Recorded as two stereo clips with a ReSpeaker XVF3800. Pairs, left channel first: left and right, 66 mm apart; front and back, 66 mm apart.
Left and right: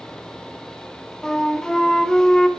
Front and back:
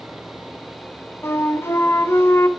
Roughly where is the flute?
Ahead.